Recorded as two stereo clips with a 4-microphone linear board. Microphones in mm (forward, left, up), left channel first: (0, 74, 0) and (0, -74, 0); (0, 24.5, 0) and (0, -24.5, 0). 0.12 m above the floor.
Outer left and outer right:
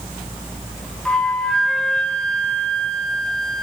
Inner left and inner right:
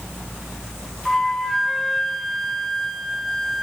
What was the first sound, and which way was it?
A flute, 5° left (ahead or behind).